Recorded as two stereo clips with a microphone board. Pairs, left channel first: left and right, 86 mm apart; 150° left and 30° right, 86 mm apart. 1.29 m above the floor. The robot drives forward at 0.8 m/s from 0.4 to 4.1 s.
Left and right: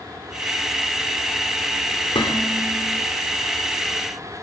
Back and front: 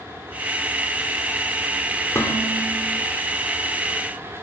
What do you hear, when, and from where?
2.1 s dishes clattering: 90° left, 3 m; by 2.9 s 105° left, 3 m